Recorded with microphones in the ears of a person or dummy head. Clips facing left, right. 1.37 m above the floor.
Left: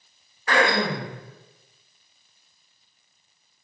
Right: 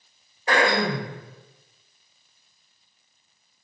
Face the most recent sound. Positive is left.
turn(degrees=-25)  # may be behind; listen again after turning